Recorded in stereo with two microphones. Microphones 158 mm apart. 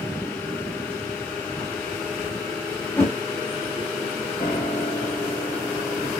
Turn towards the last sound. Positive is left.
turn(degrees=45)  # may be behind; listen again after turning